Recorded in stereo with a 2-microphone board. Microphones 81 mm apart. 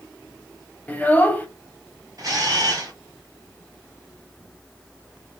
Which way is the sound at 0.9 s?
20° left (ahead or behind).